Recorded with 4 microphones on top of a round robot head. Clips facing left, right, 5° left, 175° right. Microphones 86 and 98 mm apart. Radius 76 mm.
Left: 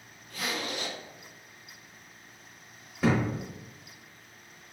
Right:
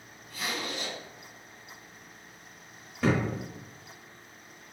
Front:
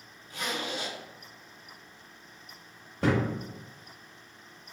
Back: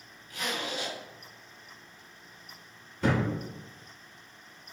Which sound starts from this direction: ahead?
A thud, at 3.0 s.